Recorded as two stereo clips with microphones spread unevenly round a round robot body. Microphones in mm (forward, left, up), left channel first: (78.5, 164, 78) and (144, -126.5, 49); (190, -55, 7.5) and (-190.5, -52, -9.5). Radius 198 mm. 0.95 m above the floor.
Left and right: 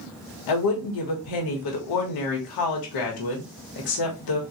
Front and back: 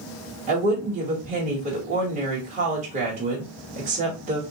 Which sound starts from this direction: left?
A woman speaking, at 0.5 s.